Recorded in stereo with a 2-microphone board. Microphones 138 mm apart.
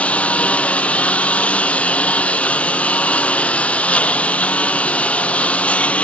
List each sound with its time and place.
0.0 s a lawn mower: 10° left (ahead or behind)